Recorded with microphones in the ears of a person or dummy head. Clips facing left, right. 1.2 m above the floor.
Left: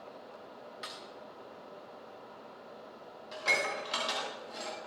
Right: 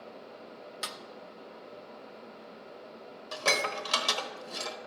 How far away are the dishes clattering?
About 1.0 m.